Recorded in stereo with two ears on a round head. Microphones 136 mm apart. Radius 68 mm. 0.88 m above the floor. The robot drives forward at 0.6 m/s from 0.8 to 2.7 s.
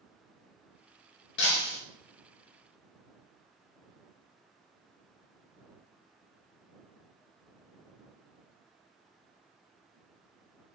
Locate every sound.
1.4 s breaking glass: 85° left, 1.9 m; by 1.8 s 75° left (ahead or behind), 2.0 m